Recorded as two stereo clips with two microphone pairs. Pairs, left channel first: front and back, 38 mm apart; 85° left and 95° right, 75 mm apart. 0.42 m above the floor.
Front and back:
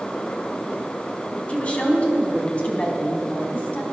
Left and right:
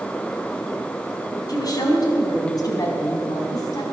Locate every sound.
1.5 s a woman speaking: 55° left, 3.5 m